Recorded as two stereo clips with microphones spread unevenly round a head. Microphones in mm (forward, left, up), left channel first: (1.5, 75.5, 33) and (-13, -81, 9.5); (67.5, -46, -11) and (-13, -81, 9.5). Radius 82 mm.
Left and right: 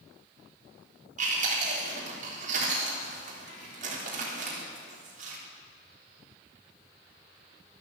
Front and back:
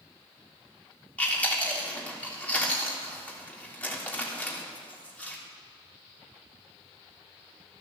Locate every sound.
1.2 s chewing: 50° right, 3.5 m